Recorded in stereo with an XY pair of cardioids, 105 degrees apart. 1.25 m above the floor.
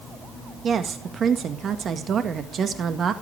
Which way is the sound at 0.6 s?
50° right.